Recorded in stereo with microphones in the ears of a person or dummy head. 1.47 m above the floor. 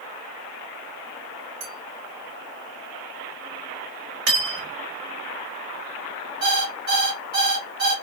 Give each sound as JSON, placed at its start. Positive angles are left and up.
{"t": 1.6, "sound": "a clink", "side_deg": -60, "distance_m": 1.2}
{"t": 4.3, "sound": "cutlery clinking", "side_deg": -60, "distance_m": 1.2}
{"t": 6.4, "sound": "an alarm clock", "side_deg": -55, "distance_m": 1.1}